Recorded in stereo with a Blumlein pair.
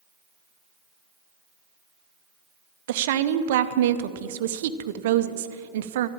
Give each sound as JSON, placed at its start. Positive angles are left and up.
{"t": 2.9, "sound": "a woman speaking", "azimuth_deg": -55, "distance_m": 0.8}